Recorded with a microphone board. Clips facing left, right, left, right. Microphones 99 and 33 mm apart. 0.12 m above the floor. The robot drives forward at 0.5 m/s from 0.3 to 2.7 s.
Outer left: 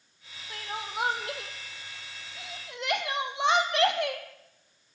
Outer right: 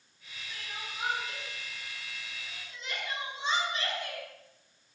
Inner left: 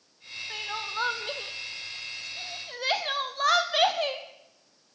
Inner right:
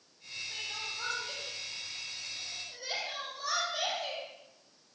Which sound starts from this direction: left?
Crying, at 0.5 s.